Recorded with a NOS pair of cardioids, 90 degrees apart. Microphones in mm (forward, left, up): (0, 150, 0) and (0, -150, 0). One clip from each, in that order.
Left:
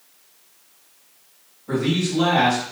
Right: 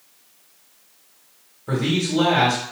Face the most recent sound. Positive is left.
turn(degrees=-70)